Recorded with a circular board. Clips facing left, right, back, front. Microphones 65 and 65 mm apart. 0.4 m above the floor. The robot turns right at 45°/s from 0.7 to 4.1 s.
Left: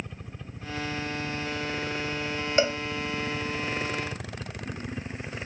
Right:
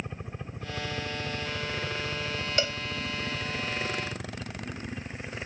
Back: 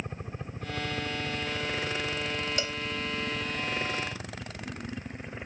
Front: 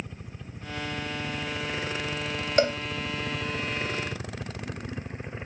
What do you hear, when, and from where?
0.0 s a helicopter: 145° right; by 5.5 s 30° left
2.6 s a cowbell: 30° left; by 2.8 s 40° left